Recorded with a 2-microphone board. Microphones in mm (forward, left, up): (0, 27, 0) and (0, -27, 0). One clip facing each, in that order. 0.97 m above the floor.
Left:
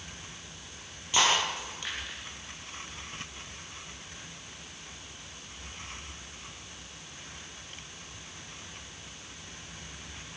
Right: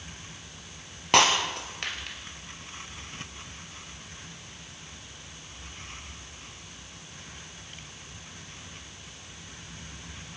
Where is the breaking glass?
70° right (ahead or behind), 3 m.